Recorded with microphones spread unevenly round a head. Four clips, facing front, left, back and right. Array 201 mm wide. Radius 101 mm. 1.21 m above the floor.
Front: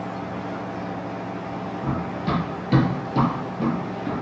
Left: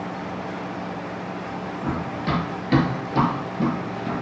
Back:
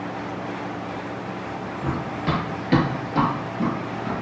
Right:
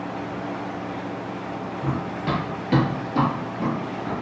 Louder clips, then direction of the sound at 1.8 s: Even, back 1 dB; 175° right.